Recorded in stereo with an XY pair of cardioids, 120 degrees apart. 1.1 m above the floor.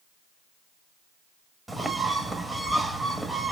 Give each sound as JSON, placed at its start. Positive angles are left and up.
{"t": 1.7, "sound": "a bird", "azimuth_deg": -10, "distance_m": 1.1}